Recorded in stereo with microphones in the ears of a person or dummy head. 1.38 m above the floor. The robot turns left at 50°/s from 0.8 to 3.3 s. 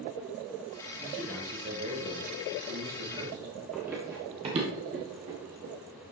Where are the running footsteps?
Centre (ahead or behind), 1.7 m; by 5.7 s 50° right (ahead or behind), 3 m.